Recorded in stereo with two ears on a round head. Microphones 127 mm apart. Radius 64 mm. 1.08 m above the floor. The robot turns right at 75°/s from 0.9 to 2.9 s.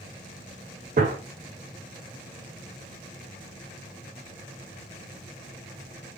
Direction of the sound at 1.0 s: 55° right (ahead or behind).